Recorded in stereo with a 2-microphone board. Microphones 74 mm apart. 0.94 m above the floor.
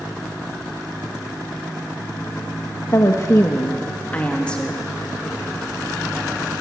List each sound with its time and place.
2.9 s a woman speaking: 50° left (ahead or behind), 1.3 m; by 4.9 s 10° left (ahead or behind), 2 m